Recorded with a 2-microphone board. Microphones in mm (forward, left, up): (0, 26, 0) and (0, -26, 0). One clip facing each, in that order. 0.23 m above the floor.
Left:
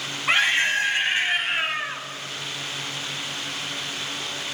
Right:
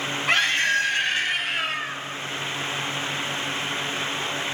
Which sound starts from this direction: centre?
A scream, at 0.3 s.